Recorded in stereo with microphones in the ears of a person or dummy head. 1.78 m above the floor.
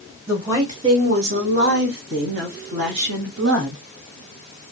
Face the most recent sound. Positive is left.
turn(degrees=-65)  # may be behind; listen again after turning